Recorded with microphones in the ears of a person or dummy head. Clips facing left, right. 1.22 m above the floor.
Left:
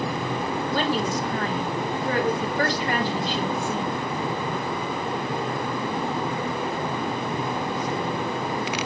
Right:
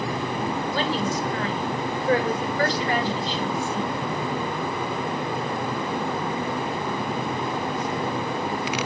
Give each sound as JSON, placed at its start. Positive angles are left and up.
{"t": 0.7, "sound": "a woman speaking", "side_deg": 50, "distance_m": 3.5}